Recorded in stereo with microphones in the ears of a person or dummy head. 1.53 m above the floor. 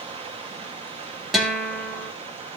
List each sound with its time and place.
0.0 s running water: 30° right (ahead or behind), 0.9 m
1.3 s a guitar: centre (ahead or behind), 2.5 m